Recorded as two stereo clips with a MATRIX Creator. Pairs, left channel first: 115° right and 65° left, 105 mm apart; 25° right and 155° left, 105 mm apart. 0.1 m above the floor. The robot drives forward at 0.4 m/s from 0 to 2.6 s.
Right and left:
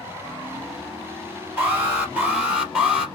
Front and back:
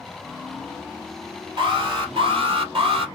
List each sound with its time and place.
1.6 s an alarm: 140° left, 2.5 m; by 3.0 s 145° left, 3 m